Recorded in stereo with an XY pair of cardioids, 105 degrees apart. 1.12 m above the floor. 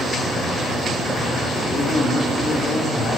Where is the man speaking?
40° left, 2 m.